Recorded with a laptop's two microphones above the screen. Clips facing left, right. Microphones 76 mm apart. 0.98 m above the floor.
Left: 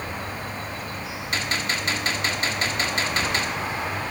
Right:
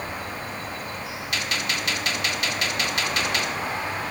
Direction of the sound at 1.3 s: 35° left (ahead or behind).